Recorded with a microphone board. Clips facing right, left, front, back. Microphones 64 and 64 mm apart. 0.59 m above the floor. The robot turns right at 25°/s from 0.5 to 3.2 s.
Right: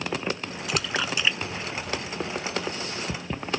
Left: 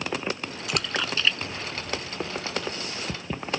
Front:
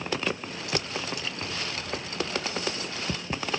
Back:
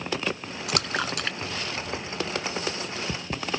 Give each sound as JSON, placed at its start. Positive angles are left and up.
{"t": 0.7, "sound": "a splash", "azimuth_deg": 180}